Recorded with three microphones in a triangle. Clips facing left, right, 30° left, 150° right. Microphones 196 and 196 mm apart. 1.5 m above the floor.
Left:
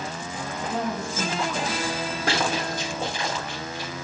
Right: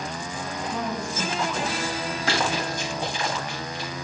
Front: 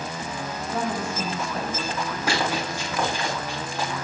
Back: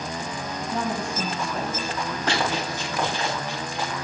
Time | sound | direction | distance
0.6 | a woman speaking | 115° left | 4.5 m
2.3 | running footsteps | 110° left | 5 m